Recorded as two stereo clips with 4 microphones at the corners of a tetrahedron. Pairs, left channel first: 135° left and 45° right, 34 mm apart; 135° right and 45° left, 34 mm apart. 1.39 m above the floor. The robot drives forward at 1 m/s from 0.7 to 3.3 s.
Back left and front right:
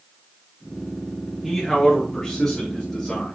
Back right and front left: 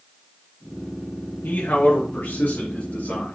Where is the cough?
No cough in this recording.